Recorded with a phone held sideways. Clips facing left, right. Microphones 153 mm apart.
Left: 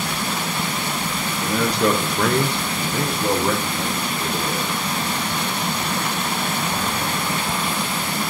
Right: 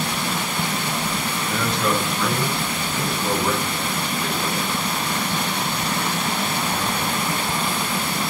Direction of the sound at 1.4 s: 25° left (ahead or behind).